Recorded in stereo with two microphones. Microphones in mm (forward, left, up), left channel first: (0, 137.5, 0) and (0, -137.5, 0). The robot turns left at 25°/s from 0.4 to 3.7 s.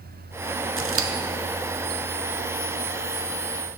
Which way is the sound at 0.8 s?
45° right (ahead or behind).